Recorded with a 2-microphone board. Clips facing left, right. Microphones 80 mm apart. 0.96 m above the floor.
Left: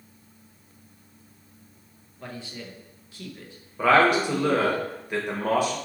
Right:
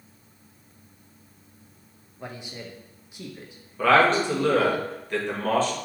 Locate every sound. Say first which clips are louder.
2.2 s a man speaking: even; 15° right (ahead or behind), 0.7 m
3.8 s a man speaking: even; 15° left (ahead or behind), 1.3 m